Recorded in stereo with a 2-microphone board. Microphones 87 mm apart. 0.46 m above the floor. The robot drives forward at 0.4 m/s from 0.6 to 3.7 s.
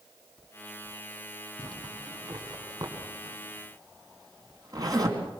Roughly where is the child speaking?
I don't hear a child speaking.